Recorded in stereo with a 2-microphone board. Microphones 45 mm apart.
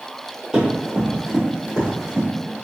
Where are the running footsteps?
15° right (ahead or behind), 1.9 m; by 2.3 s 5° right (ahead or behind), 2.5 m.